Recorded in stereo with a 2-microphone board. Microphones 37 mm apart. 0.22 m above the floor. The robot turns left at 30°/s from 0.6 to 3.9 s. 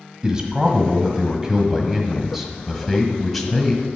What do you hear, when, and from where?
0.2 s a man speaking: 20° right (ahead or behind), 1.5 m; by 3.8 s 10° left (ahead or behind), 1.5 m